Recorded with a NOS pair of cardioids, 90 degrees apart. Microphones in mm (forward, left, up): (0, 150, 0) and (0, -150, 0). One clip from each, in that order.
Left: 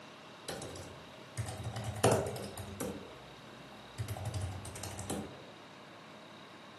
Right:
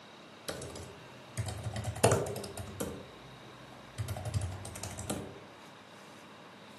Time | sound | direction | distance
0.5 | typing on a keyboard | 15° right | 0.8 m